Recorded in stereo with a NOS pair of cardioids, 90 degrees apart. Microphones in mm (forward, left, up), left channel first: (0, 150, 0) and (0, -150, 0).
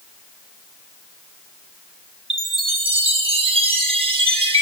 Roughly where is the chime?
Ahead.